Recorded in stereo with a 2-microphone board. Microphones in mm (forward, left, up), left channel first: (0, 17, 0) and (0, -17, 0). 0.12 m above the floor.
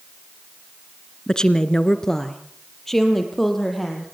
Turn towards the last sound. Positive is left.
turn(degrees=5)  # may be behind; listen again after turning